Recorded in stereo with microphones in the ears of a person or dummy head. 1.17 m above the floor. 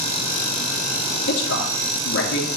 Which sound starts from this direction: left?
A man speaking, at 1.3 s.